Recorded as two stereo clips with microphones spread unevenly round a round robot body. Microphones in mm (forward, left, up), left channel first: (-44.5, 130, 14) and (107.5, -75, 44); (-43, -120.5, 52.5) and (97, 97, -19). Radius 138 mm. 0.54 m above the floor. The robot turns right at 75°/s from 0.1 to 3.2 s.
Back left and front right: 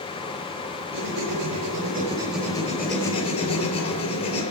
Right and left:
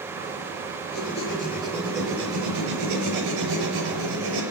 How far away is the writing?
About 5 m.